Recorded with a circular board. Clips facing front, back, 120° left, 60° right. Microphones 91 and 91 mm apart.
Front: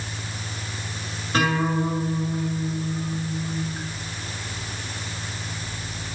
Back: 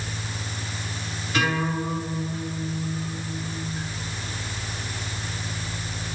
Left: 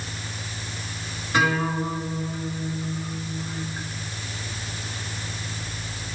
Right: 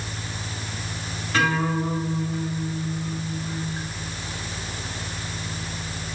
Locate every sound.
1.3 s a guitar: 45° left, 6.5 m